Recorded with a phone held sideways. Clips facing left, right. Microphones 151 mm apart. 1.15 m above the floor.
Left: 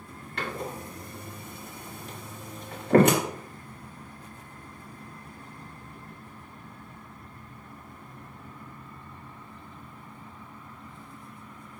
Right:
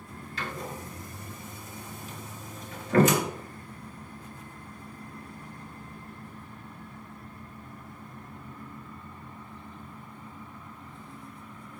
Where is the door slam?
65° left (ahead or behind), 2.0 m.